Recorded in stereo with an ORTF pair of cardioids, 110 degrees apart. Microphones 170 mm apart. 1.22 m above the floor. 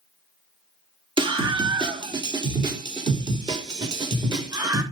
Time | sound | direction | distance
1.2 | a scream | 30° right | 3.5 m